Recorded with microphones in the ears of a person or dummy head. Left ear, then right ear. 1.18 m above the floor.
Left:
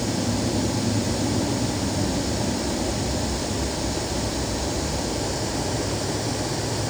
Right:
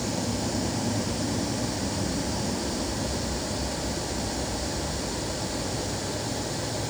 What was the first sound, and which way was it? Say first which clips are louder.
An aircraft: left 4 dB; 30° left (ahead or behind).